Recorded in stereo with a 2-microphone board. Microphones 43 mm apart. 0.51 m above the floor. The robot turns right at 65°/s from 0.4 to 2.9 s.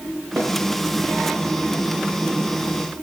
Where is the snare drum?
80° right, 9 m; by 0.5 s 85° right, 9 m.